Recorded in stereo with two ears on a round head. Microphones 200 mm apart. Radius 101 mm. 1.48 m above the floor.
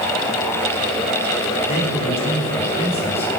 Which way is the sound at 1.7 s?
30° left (ahead or behind).